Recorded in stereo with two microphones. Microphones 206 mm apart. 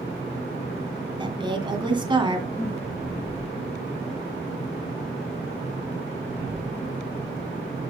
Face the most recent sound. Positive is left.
turn(degrees=15)  # may be behind; listen again after turning